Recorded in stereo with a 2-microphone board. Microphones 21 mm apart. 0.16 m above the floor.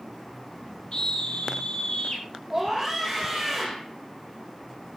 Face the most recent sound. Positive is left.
turn(degrees=-10)  # may be behind; listen again after turning